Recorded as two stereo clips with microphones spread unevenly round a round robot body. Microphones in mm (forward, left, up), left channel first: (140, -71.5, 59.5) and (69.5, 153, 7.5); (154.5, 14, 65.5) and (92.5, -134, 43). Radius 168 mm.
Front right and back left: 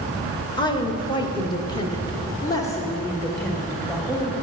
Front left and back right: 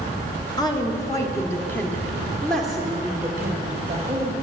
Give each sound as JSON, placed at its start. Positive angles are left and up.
{"t": 0.6, "sound": "a woman speaking", "azimuth_deg": 5, "distance_m": 1.7}